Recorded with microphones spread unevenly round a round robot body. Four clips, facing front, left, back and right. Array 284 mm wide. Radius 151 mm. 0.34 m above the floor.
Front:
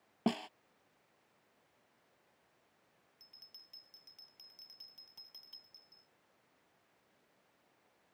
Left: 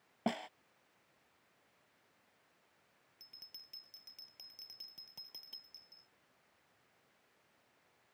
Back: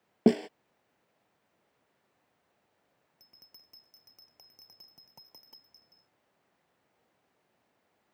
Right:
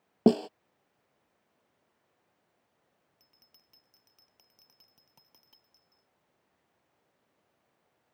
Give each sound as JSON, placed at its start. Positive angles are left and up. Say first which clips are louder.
{"t": 0.3, "sound": "a snare drum", "louder": "right 15 dB, back 12 dB", "azimuth_deg": -130}
{"t": 3.2, "sound": "a bell", "louder": "left 3 dB, back 1 dB", "azimuth_deg": 170}